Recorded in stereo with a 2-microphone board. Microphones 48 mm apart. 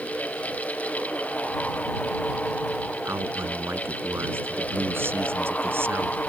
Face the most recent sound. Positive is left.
turn(degrees=-55)  # may be behind; listen again after turning